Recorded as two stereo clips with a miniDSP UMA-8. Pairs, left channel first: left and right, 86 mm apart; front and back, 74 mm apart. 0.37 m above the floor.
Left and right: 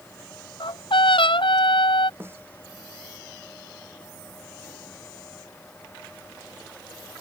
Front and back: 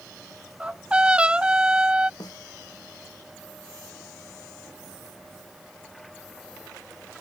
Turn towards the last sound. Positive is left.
turn(degrees=-30)